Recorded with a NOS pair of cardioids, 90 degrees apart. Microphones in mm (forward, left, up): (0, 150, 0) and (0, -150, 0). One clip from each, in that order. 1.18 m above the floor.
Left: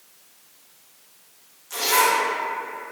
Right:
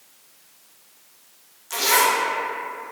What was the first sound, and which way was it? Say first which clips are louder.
A zipper: right 1 dB; 25° right.